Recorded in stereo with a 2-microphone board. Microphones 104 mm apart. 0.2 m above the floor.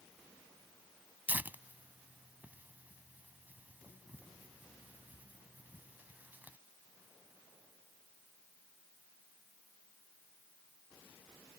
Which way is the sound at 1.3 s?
15° right (ahead or behind).